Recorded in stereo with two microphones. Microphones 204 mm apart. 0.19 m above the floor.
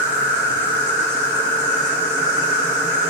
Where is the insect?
60° left (ahead or behind), 2 m.